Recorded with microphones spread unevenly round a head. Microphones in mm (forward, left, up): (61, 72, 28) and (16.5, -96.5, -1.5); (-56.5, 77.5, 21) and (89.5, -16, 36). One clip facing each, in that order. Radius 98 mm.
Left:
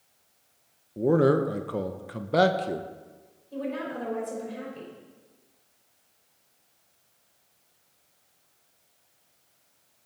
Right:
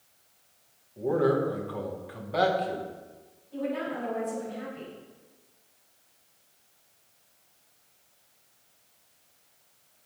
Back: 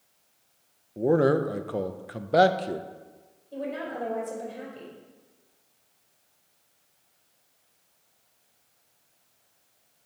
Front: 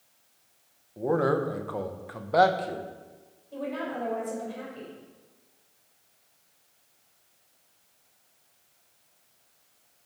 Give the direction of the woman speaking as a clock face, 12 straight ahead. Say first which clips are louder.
Right 1 dB, even; 9 o'clock.